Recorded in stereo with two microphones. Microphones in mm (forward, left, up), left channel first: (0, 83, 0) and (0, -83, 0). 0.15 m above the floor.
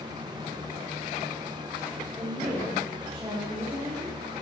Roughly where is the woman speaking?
Centre.